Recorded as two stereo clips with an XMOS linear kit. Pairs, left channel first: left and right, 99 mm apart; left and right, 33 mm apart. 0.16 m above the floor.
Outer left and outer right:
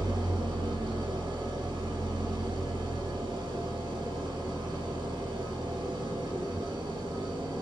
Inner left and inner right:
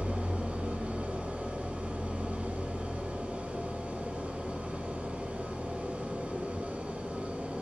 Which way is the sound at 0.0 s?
50° right (ahead or behind).